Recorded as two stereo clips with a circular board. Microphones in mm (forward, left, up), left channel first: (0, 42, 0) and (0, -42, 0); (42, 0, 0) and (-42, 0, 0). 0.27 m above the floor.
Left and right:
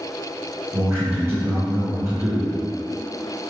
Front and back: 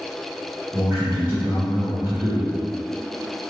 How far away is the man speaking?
About 1.2 m.